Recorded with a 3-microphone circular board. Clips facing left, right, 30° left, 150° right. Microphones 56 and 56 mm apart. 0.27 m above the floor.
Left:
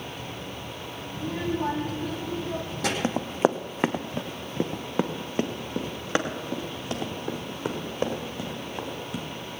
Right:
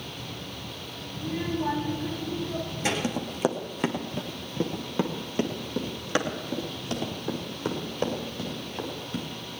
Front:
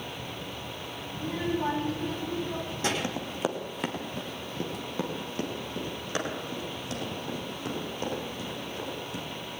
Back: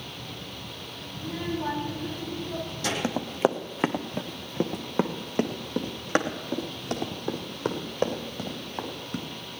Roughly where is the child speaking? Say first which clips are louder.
Left 1 dB, front 1 dB; left.